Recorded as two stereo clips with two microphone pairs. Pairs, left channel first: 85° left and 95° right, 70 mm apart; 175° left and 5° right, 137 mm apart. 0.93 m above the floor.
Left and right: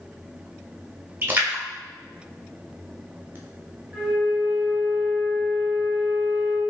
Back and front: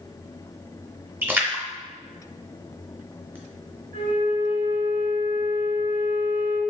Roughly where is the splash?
Right.